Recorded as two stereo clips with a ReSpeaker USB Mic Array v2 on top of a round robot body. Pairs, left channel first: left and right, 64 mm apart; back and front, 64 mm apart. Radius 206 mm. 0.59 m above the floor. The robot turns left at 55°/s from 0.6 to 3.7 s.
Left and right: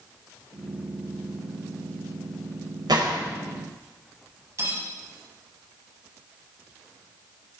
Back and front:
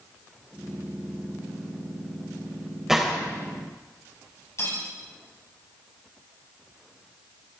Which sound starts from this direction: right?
A gunshot, at 2.9 s.